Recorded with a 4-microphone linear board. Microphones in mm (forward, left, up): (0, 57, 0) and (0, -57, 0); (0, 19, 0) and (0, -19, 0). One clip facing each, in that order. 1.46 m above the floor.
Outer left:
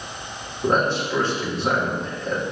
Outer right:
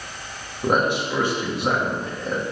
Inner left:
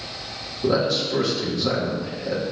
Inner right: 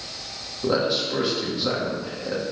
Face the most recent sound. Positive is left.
turn(degrees=-15)  # may be behind; listen again after turning